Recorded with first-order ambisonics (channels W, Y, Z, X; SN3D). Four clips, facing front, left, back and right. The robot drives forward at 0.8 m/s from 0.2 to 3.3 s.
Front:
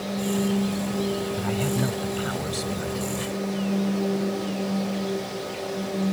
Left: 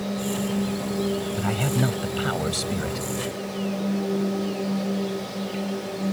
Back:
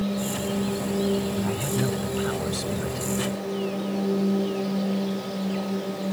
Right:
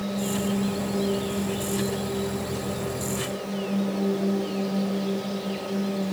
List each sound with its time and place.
1.3 s a man speaking: 75° left; by 3.1 s 95° left